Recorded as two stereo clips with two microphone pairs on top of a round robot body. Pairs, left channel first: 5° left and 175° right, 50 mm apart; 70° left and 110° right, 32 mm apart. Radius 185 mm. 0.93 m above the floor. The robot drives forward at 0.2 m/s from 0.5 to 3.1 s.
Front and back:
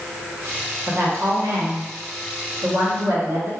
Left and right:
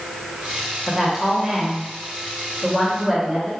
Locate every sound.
0.9 s a woman speaking: 175° left, 1.3 m; by 3.5 s straight behind, 1.7 m